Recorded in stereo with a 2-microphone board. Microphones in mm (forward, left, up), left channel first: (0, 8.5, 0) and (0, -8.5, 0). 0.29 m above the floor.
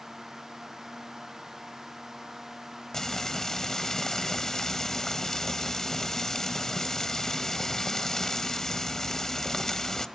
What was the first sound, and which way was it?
Frying, 30° left (ahead or behind).